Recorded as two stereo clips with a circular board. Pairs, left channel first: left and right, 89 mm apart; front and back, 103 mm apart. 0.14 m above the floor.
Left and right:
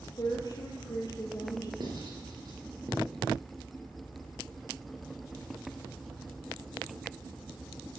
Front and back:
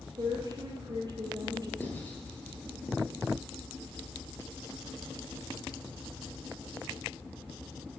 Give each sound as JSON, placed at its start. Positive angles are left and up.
{"t": 0.2, "sound": "a woman speaking", "azimuth_deg": 130, "distance_m": 2.5}
{"t": 1.8, "sound": "writing", "azimuth_deg": -70, "distance_m": 3.0}